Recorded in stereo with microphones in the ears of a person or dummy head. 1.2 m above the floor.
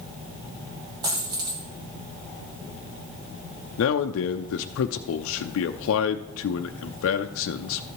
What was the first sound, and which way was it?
A dropped coin, 20° right (ahead or behind).